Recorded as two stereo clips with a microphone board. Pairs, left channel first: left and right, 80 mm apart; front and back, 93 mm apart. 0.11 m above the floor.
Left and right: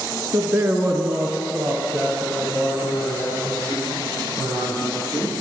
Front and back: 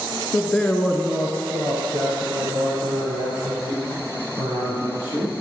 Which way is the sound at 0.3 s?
55° right.